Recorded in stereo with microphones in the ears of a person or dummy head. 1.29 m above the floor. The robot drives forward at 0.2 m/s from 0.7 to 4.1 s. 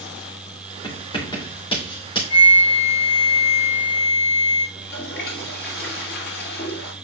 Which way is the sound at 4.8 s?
60° left (ahead or behind).